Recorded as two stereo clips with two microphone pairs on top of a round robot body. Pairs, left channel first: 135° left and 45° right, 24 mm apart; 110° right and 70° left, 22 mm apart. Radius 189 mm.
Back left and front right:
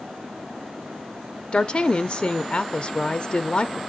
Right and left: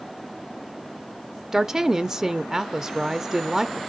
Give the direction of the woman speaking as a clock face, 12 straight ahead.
8 o'clock.